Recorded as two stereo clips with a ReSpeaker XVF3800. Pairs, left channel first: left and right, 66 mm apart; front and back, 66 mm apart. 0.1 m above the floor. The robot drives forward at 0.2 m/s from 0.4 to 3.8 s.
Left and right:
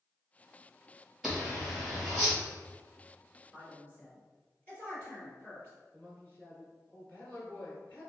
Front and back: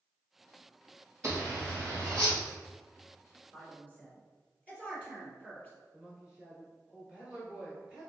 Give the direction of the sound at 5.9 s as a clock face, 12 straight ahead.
8 o'clock.